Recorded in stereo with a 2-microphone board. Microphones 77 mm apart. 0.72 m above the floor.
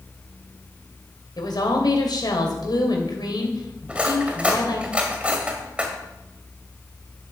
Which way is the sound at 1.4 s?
75° left (ahead or behind).